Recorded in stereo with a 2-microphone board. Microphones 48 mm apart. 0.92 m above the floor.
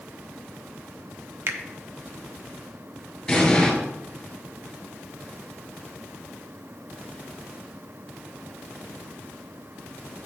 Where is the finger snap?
60° right (ahead or behind), 0.8 m.